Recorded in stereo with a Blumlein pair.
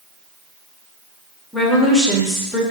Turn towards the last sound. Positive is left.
turn(degrees=10)